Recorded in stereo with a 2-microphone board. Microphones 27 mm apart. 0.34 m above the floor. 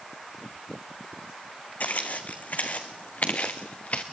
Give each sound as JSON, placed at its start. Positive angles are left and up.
{"t": 1.8, "sound": "footsteps", "side_deg": 65, "distance_m": 1.2}